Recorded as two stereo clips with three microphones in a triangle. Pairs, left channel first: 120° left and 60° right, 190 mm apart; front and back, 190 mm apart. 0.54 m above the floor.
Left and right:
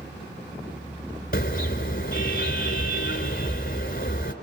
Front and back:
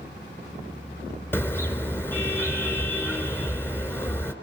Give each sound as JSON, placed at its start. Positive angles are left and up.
{"t": 1.3, "sound": "a car horn", "azimuth_deg": 80, "distance_m": 3.5}